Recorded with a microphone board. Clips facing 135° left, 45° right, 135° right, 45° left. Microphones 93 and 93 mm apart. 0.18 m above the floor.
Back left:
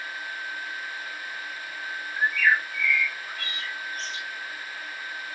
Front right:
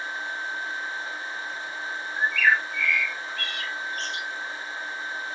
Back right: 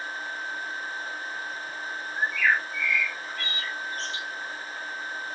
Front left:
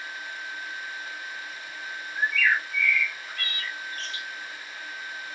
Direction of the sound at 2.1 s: 70° right.